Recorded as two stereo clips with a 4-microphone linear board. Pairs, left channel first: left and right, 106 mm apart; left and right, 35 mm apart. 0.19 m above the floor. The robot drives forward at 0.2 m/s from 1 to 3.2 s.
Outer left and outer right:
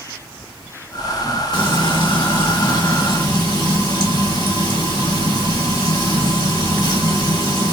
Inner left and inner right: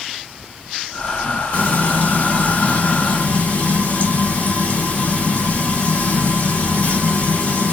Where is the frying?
50° left (ahead or behind), 2.5 m.